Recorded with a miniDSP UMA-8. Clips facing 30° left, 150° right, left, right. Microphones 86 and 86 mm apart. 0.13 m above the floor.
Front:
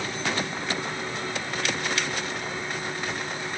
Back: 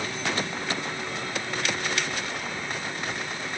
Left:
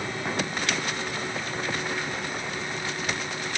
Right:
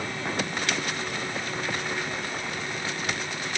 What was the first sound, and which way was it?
Only background noise.